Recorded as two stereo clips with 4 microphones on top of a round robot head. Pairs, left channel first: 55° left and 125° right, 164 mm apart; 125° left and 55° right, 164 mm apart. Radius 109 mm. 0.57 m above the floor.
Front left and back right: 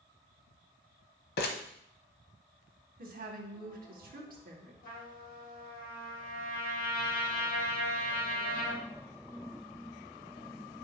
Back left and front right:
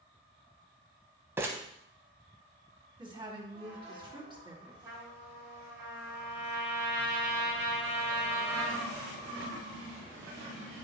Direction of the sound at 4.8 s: 20° left.